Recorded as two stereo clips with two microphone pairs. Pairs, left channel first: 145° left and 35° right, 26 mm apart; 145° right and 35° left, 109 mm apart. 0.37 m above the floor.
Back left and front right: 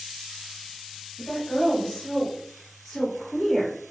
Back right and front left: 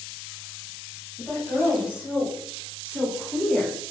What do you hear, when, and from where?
1.2 s a woman speaking: 110° left, 1.6 m; by 3.8 s 40° right, 1.1 m